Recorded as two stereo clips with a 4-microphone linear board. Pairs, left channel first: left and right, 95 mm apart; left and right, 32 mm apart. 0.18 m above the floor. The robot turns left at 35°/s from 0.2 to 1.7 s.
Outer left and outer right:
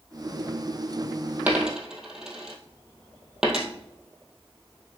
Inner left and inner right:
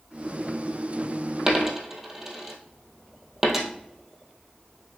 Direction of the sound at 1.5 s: 15° right (ahead or behind).